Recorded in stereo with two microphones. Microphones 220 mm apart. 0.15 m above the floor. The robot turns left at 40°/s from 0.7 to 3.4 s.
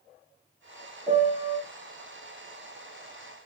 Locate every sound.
1.1 s a piano: 30° left (ahead or behind), 4.5 m; by 1.6 s 50° left (ahead or behind), 4.5 m